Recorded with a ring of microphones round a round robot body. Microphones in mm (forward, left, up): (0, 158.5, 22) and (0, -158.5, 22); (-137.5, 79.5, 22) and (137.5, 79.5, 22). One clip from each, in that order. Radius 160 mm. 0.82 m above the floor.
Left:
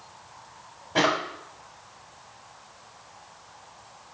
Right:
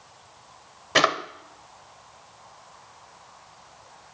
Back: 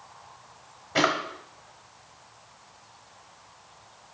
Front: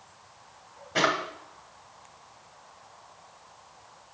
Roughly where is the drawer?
Right.